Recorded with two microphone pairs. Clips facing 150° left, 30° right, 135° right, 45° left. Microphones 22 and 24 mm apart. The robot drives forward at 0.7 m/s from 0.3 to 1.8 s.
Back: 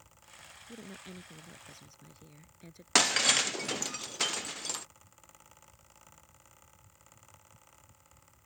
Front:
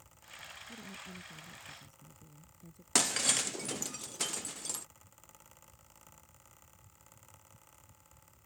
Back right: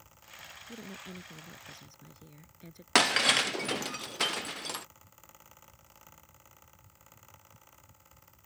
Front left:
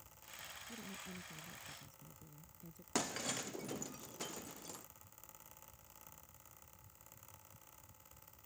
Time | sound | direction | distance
0.7 | a woman speaking | 170° right | ?
3.0 | breaking glass | 145° right | ?